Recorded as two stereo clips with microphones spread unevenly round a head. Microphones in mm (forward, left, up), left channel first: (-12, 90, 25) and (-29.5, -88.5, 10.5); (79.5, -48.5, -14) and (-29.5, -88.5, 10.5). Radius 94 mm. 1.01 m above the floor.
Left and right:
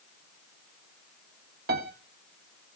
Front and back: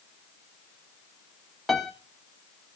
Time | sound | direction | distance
1.7 | a piano | 65° right | 1.4 m